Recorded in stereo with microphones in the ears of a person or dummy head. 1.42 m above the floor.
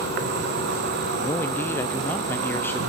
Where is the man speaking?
5° left (ahead or behind), 0.6 m.